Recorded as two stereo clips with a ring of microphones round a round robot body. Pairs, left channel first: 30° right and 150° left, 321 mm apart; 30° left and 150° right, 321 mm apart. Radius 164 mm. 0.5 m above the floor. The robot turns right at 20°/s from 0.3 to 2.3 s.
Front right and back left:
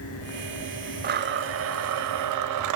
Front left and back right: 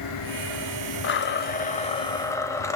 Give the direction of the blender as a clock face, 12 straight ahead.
9 o'clock.